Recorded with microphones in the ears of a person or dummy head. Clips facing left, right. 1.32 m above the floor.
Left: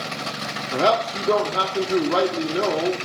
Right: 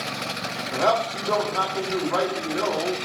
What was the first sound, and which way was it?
A man speaking, 30° left (ahead or behind).